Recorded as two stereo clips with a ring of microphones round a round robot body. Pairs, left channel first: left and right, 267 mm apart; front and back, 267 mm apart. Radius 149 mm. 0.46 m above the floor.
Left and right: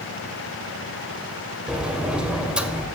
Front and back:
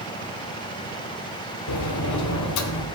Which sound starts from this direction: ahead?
A sliding door, at 1.7 s.